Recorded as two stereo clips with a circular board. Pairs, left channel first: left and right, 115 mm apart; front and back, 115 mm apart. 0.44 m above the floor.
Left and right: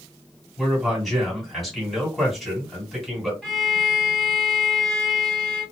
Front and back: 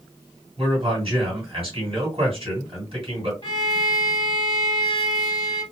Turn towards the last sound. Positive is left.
turn(degrees=5)